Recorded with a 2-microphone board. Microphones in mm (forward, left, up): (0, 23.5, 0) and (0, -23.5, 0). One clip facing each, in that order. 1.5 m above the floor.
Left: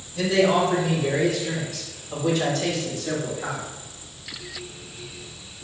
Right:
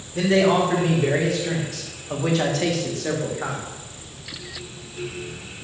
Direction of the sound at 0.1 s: 50° right (ahead or behind).